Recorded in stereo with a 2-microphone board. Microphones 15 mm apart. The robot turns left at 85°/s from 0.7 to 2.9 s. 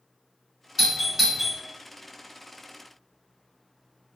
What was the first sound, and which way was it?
A doorbell, 20° right (ahead or behind).